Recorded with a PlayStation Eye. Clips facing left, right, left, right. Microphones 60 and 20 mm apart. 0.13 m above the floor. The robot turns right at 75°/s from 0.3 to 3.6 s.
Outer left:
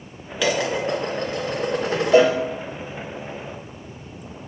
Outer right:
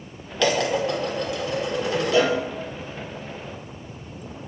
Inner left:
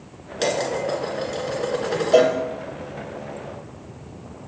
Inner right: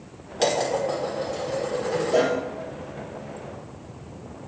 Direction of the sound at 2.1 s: 40° left (ahead or behind).